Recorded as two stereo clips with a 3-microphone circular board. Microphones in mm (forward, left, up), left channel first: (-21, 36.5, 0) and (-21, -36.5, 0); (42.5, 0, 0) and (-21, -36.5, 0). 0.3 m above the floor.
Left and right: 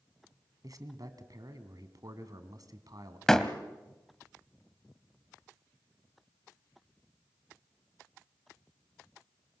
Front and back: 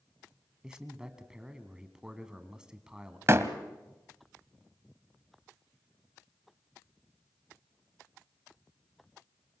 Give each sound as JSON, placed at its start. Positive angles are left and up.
{"t": 0.6, "sound": "a man speaking", "azimuth_deg": -70, "distance_m": 2.0}
{"t": 3.3, "sound": "a door slam", "azimuth_deg": 170, "distance_m": 1.3}